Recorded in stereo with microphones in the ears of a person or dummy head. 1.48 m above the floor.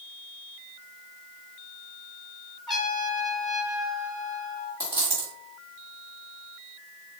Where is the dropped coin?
15° right (ahead or behind), 1.6 m.